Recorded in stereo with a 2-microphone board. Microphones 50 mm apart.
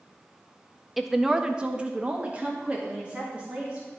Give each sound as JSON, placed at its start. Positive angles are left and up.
{"t": 1.0, "sound": "a woman speaking", "side_deg": 0, "distance_m": 0.6}